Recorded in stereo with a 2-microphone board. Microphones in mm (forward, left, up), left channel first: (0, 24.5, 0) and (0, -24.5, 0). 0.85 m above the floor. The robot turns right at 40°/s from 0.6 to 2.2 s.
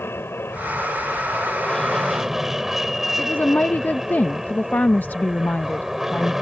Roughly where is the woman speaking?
Left.